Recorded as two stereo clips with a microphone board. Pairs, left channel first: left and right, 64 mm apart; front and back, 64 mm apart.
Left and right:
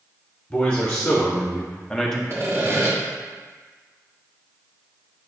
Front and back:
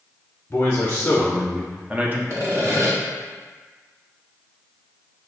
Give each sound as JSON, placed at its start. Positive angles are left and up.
{"t": 0.5, "sound": "a man speaking", "azimuth_deg": 45, "distance_m": 1.0}
{"t": 2.3, "sound": "sawing", "azimuth_deg": -135, "distance_m": 1.4}